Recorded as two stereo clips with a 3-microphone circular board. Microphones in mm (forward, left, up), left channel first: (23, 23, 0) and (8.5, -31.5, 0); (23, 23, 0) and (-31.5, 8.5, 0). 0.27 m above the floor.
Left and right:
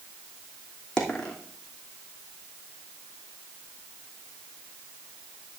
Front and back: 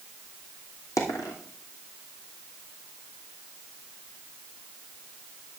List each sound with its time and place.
1.0 s a dropped coin: straight ahead, 3 m